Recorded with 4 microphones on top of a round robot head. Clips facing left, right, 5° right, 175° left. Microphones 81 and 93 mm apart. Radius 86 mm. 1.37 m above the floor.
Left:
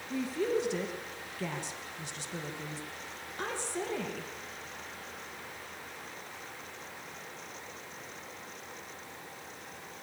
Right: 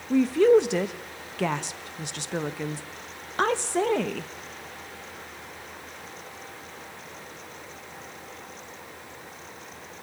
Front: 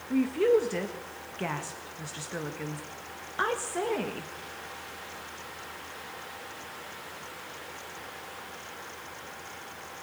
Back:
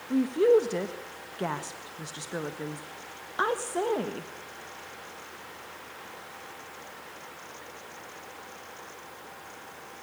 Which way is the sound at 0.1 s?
110° right.